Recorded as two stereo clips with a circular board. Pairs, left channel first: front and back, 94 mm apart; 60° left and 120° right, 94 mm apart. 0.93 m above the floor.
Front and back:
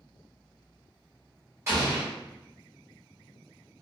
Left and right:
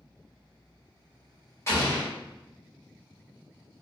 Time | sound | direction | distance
1.7 | an explosion | 120° left | 1.2 m